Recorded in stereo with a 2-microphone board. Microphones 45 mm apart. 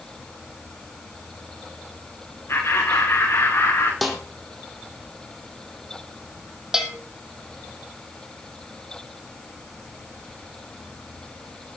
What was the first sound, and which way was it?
Laughter, 65° left (ahead or behind).